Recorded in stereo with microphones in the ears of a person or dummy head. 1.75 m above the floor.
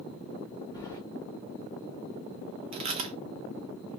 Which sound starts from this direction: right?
Chewing, at 2.7 s.